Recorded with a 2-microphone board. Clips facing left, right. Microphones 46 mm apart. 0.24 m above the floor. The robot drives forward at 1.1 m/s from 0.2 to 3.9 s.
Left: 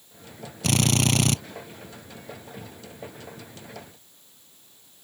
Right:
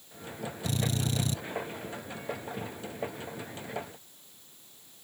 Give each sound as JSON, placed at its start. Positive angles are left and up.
{"t": 0.6, "sound": "a drill", "side_deg": 80}